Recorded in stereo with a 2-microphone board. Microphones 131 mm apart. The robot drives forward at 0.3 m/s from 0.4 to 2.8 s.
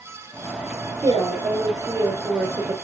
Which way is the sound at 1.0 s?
30° right (ahead or behind).